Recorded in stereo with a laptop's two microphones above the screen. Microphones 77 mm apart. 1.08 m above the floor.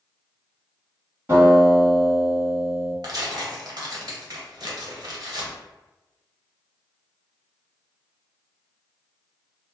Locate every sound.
1.3 s a guitar: 30° right (ahead or behind), 1.7 m
3.0 s tearing paper: 60° right (ahead or behind), 0.7 m